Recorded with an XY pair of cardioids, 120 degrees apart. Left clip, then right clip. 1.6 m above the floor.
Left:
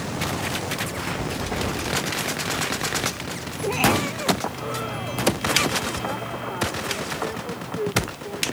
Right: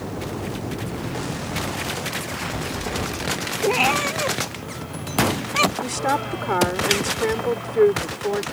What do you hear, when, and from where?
3.6 s a cat meowing: 35° right; by 5.7 s 45° right
5.8 s a woman speaking: 65° right